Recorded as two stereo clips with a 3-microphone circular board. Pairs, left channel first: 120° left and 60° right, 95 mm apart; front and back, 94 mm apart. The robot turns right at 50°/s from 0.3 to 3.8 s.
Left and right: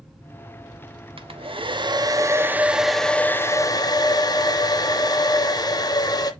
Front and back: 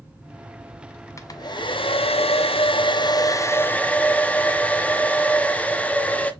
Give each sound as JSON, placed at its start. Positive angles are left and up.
{"t": 1.2, "sound": "a hair dryer", "azimuth_deg": -55, "distance_m": 0.5}